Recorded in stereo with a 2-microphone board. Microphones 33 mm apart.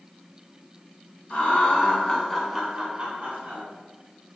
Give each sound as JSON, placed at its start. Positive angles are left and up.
{"t": 1.3, "sound": "laughter", "side_deg": 50, "distance_m": 1.2}